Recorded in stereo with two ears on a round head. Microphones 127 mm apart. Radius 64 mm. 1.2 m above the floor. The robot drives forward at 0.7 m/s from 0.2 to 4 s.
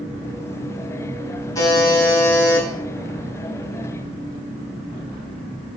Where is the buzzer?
25° left (ahead or behind), 4.5 m; by 2.7 s 20° left (ahead or behind), 5 m.